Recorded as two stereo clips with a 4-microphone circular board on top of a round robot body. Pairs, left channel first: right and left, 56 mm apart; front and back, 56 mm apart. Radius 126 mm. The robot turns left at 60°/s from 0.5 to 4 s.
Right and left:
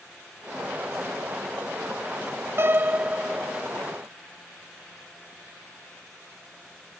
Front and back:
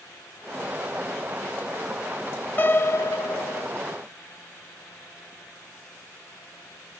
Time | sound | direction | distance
2.6 | a piano | 50° left | 0.9 m